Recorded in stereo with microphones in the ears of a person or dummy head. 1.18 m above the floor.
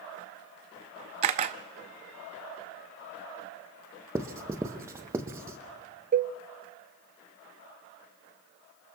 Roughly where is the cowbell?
Right.